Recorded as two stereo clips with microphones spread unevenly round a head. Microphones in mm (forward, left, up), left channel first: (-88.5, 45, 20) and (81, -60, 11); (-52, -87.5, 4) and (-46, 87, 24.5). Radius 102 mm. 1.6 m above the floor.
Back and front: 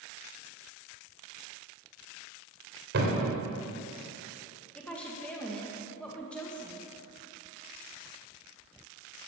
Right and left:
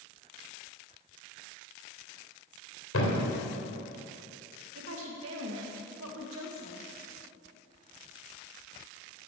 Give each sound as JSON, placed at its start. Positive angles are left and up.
{"t": 2.9, "sound": "a thud", "azimuth_deg": -65, "distance_m": 3.0}
{"t": 4.8, "sound": "a woman speaking", "azimuth_deg": 65, "distance_m": 1.9}